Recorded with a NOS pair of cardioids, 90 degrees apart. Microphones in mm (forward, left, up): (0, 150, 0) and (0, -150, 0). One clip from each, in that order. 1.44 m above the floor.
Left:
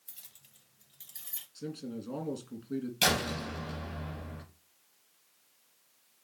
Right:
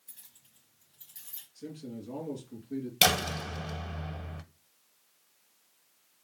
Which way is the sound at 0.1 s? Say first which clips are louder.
Left 3 dB; 45° left.